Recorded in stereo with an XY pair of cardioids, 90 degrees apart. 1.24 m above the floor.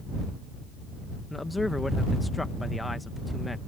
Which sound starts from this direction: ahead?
A man speaking, at 1.3 s.